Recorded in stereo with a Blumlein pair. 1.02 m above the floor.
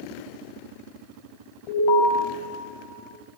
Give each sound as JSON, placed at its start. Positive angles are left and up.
{"t": 1.7, "sound": "an alarm", "azimuth_deg": 40, "distance_m": 6.0}